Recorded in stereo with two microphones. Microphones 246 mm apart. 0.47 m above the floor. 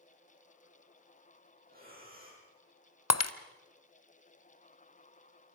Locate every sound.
1.7 s breathing: 35° right (ahead or behind), 8.5 m
3.1 s breaking glass: 90° left, 0.9 m